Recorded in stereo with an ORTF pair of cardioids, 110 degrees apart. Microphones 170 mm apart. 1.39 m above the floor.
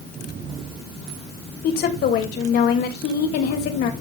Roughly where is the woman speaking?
Left.